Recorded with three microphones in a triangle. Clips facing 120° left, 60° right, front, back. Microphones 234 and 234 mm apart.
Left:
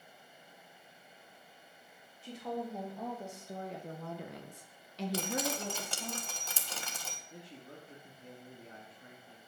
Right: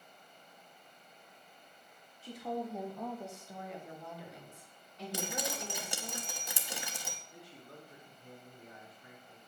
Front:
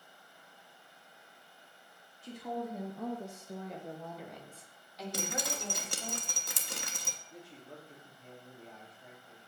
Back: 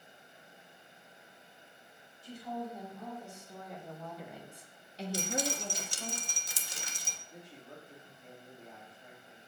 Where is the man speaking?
85° left, 2.5 m.